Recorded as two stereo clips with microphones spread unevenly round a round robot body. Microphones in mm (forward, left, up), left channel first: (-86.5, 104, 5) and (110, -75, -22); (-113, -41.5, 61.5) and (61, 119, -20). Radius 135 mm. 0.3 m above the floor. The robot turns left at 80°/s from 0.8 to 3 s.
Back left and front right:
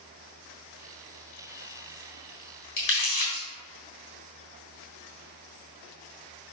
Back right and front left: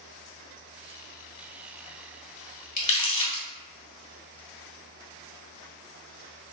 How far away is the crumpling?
About 1.9 m.